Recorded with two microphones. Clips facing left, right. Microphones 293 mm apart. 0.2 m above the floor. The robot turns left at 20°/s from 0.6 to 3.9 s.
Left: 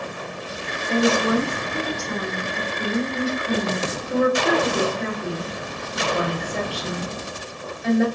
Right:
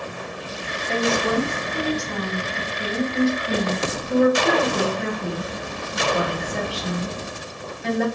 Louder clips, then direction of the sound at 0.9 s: Left 3 dB; 15° left (ahead or behind).